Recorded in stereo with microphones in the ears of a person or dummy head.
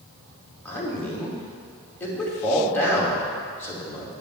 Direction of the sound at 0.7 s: 10° left (ahead or behind).